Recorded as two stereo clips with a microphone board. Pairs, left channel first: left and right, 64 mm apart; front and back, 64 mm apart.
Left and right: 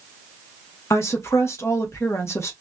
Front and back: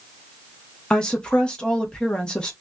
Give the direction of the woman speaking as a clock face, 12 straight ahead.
10 o'clock.